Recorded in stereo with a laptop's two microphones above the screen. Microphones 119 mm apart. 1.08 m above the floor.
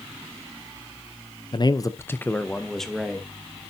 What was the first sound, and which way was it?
A man speaking, 45° left (ahead or behind).